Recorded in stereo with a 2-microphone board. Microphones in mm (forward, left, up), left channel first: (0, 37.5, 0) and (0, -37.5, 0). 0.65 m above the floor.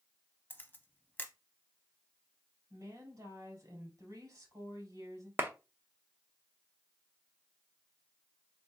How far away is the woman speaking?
About 2.5 m.